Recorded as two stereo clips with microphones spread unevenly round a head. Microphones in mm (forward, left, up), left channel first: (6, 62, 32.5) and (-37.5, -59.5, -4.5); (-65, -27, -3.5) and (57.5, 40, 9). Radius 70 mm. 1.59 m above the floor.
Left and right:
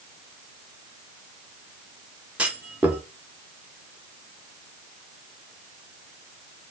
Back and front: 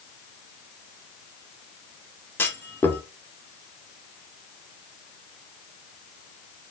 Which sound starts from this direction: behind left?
A clunk, at 2.4 s.